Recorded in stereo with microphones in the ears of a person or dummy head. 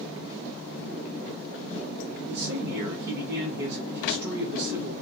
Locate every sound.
2.3 s a man speaking: 55° right (ahead or behind), 1.0 m